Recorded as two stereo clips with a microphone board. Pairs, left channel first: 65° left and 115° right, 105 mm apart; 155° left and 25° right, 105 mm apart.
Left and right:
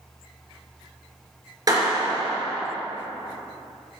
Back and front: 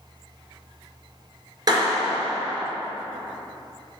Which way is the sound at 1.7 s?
65° right.